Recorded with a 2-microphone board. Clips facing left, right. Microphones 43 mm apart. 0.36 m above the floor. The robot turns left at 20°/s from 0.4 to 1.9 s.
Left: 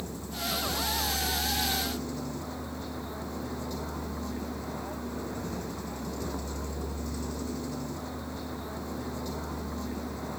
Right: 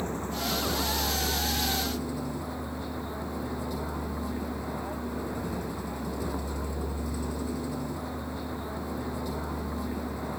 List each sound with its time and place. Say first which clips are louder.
0.0 s a vehicle: right 5 dB; 140° right; by 10.4 s 170° right